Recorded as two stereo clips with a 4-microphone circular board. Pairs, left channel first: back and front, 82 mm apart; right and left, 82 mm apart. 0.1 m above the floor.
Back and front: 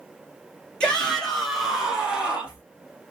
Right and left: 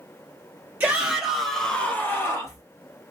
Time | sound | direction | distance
0.8 | a shout | 120° left | 1.3 m